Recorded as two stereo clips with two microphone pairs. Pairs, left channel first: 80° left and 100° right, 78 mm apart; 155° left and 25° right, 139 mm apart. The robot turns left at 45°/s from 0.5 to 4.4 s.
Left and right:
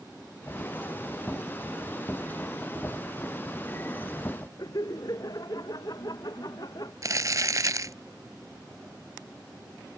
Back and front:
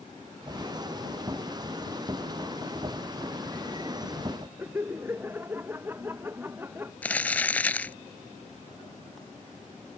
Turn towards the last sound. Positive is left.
turn(degrees=-130)